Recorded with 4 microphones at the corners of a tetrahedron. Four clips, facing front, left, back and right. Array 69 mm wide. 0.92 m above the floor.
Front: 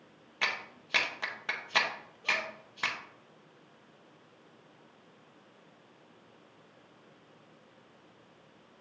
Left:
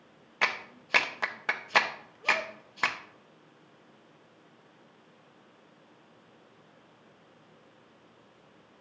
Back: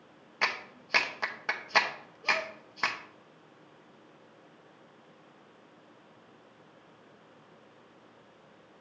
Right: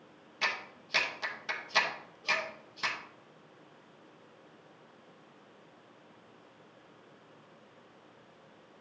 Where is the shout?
I don't hear a shout.